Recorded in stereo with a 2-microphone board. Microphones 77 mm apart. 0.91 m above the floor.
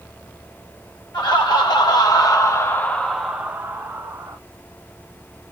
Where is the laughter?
75° left (ahead or behind), 1.1 m; by 4.4 s 45° right (ahead or behind), 0.8 m.